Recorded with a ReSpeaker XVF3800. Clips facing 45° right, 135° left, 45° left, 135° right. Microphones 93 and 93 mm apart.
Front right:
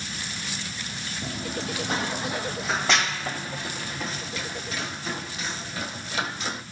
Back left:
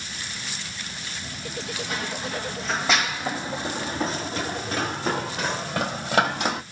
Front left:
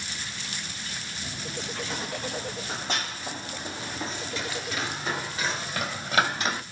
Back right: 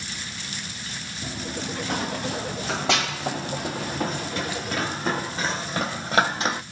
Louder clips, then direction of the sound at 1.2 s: Front right 4 dB, back right 6 dB; 90° right.